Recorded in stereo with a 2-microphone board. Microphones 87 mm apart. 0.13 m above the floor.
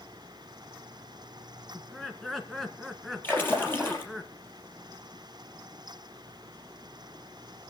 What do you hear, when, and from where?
1.7 s laughter: centre (ahead or behind), 1.8 m
3.2 s a splash: 25° left (ahead or behind), 4 m